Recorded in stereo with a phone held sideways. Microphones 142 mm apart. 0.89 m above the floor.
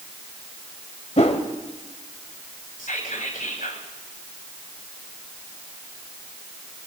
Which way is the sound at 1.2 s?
55° left (ahead or behind).